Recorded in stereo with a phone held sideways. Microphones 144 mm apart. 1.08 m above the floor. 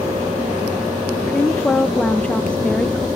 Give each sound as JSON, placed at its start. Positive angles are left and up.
{"t": 1.3, "sound": "a woman speaking", "side_deg": 10, "distance_m": 0.7}